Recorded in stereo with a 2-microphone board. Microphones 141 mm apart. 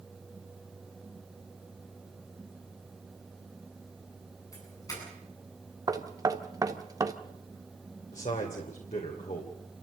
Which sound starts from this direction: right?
Knocking, at 5.9 s.